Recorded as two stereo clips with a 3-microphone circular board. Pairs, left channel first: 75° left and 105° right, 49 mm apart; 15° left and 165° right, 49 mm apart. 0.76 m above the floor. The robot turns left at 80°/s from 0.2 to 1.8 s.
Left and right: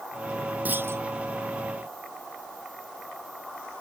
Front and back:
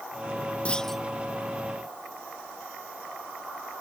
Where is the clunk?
50° right; by 1.0 s 80° right.